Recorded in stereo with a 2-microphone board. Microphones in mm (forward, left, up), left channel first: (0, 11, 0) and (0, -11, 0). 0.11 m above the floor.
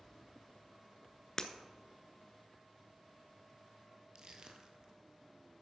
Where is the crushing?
45° right (ahead or behind), 1.1 m.